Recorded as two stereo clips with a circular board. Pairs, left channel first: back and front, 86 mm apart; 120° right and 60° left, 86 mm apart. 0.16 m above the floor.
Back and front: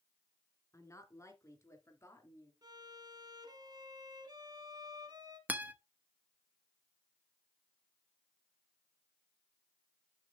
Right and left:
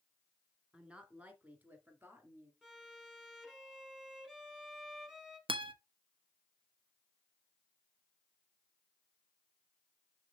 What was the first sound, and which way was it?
A woman speaking, 135° left.